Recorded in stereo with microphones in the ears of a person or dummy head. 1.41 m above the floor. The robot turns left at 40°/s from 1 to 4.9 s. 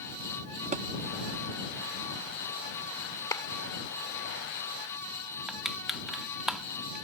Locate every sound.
0.7 s a thud: 40° right (ahead or behind)
3.3 s a clap: 15° left (ahead or behind); by 3.4 s 10° left (ahead or behind)
5.5 s crushing: centre (ahead or behind)